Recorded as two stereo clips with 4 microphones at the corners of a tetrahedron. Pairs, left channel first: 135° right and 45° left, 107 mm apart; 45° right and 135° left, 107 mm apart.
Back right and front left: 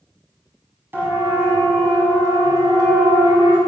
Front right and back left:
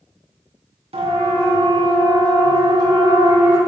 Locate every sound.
0.9 s a siren: 115° left, 6 m; by 3.6 s 85° left, 7 m